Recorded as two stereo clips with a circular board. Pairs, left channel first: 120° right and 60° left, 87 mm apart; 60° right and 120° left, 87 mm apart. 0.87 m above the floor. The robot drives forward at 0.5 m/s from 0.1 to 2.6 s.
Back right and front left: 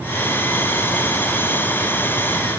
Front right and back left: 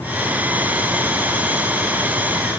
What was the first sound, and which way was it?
Only background noise.